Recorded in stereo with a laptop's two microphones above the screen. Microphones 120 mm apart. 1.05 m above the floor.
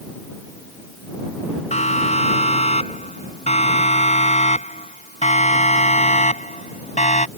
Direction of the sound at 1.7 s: 65° left (ahead or behind).